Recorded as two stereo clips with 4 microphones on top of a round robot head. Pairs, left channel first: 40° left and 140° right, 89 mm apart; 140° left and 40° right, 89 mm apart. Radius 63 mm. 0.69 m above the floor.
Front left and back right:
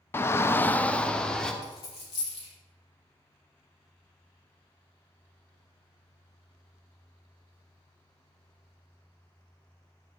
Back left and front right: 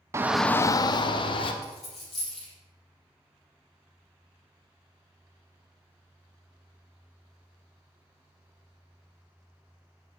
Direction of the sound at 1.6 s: 55° left.